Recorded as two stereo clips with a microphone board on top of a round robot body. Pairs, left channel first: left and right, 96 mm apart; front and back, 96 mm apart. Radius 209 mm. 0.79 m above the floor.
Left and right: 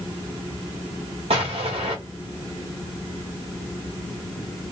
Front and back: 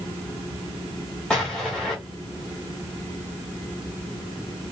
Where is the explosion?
85° right, 0.9 m.